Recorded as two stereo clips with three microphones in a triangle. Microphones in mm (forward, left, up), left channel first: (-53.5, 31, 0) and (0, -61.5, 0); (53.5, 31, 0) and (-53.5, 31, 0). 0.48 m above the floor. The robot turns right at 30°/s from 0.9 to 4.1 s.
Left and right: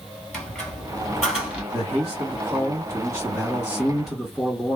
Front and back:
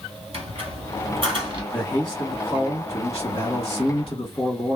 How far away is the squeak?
About 1.3 m.